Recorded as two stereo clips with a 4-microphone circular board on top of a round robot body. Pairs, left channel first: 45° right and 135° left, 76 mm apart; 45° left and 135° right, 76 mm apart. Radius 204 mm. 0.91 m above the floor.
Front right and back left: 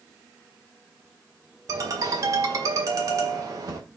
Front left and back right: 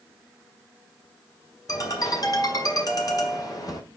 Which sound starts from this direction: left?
A ringtone, at 1.7 s.